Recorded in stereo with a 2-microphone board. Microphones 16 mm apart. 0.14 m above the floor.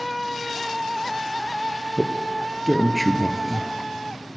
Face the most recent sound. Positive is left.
turn(degrees=-10)  # may be behind; listen again after turning